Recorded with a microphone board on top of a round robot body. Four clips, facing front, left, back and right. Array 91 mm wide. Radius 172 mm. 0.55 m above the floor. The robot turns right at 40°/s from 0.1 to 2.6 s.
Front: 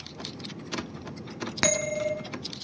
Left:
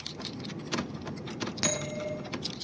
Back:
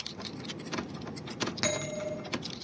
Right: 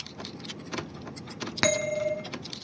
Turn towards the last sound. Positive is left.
turn(degrees=-15)